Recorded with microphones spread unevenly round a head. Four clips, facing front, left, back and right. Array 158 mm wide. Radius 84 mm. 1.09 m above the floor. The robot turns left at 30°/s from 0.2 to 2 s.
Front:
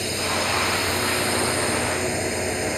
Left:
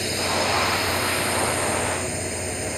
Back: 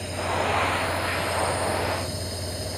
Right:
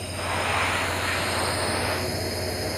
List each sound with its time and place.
0.0 s a drone: 50° left; by 2.8 s 5° right